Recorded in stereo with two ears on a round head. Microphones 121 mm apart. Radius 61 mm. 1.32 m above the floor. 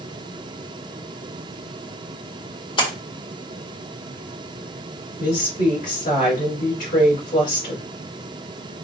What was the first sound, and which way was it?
A splash, 40° left (ahead or behind).